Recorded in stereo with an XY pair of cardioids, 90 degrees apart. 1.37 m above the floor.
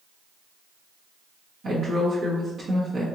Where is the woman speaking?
60° right, 1.2 m.